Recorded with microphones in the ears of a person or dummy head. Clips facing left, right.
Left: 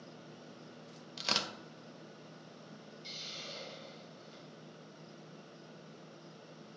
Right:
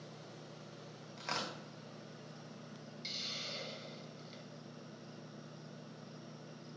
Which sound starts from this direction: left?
Tearing paper, at 1.2 s.